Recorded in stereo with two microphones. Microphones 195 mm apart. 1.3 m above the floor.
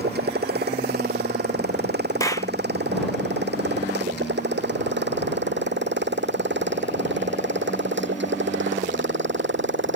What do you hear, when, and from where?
0.0 s a motorcycle: 55° right (ahead or behind); by 10.0 s 75° right (ahead or behind)
2.2 s a clap: 15° left (ahead or behind)